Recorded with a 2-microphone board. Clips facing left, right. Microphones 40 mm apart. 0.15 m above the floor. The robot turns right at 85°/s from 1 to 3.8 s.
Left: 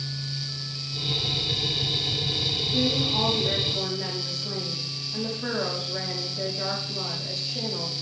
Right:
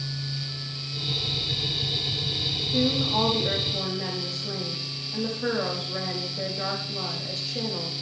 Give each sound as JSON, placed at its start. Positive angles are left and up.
{"t": 2.7, "sound": "a woman speaking", "azimuth_deg": -150, "distance_m": 6.0}